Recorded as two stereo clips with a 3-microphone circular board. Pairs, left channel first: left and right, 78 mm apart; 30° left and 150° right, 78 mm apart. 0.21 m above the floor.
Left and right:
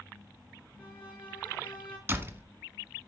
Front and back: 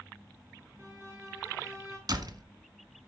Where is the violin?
155° left, 2.5 m.